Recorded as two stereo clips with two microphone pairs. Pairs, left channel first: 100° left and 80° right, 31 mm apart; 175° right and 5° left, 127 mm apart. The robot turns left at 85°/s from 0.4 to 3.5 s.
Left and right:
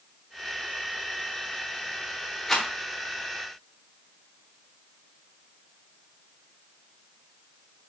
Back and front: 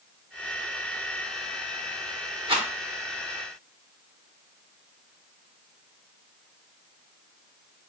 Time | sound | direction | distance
2.5 | a rattle | 30° left | 0.9 m